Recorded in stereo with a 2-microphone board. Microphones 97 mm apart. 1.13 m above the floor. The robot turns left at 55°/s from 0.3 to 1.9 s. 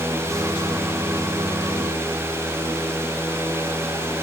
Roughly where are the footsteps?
I don't hear footsteps.